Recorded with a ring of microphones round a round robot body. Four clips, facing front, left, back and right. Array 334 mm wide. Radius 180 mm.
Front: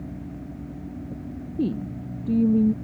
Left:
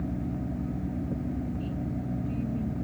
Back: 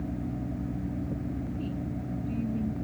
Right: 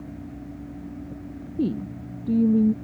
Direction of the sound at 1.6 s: 50° right.